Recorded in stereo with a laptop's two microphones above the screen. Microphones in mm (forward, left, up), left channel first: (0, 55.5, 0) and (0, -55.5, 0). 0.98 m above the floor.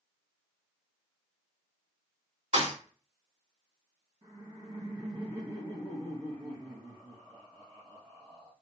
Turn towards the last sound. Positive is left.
turn(degrees=-45)  # may be behind; listen again after turning